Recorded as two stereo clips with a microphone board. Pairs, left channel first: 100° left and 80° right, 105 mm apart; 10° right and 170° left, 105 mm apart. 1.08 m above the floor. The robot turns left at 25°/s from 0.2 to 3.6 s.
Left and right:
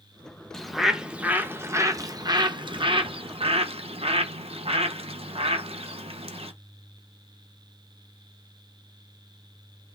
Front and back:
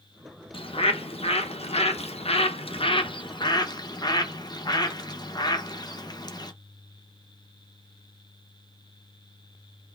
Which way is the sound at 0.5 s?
15° left.